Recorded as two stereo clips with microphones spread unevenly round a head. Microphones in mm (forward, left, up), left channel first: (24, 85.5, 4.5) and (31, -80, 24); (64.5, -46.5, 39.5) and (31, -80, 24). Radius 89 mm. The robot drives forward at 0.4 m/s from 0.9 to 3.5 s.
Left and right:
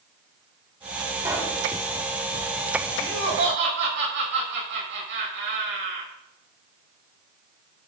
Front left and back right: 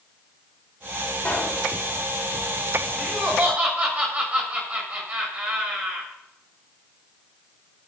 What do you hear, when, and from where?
1.2 s a pop: 20° right, 5 m
3.0 s laughter: 80° right, 7 m